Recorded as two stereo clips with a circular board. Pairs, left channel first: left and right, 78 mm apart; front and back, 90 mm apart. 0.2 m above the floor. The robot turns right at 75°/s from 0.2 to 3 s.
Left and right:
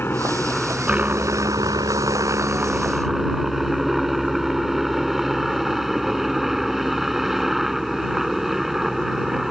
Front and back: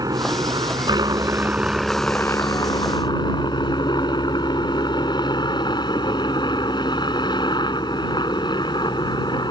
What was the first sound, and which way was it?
A helicopter, 150° left.